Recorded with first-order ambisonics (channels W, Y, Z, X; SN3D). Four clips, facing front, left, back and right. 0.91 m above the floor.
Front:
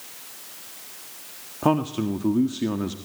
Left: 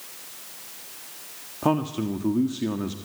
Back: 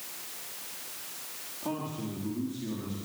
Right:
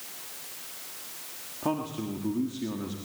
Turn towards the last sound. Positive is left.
turn(degrees=30)